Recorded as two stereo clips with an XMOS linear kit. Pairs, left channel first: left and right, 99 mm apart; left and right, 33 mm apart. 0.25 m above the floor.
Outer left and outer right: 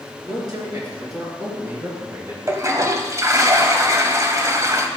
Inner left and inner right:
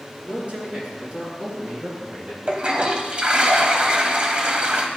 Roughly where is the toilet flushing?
Right.